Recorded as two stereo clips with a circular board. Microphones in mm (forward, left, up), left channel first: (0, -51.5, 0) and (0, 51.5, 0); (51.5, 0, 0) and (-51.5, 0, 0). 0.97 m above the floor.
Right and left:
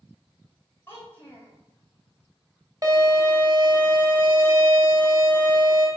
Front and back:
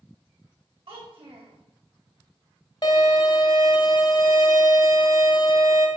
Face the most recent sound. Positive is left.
turn(degrees=40)